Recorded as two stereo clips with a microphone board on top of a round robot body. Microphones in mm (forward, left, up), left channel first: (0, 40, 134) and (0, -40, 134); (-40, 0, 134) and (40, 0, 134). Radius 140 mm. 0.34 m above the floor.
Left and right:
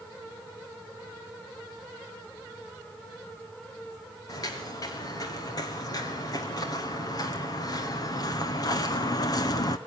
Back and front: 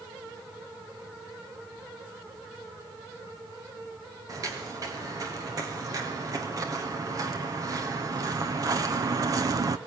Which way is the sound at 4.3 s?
45° left.